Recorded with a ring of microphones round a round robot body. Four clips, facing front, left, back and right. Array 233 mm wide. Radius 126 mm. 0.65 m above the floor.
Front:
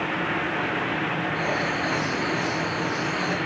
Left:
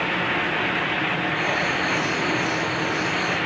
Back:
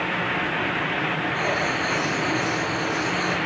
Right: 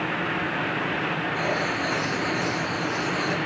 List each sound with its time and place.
1.3 s writing: 55° right, 7.5 m